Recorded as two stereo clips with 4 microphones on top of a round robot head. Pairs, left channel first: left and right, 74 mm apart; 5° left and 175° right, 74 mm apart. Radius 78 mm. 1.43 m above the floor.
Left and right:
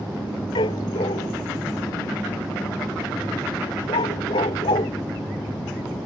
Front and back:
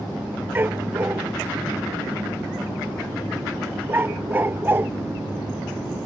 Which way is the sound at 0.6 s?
120° left.